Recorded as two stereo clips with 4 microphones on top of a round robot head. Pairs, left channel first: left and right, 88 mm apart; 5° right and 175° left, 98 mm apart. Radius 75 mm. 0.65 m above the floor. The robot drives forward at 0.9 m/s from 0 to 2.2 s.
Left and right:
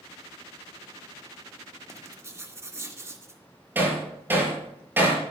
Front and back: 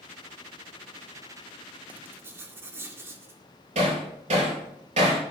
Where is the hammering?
155° right, 6 m.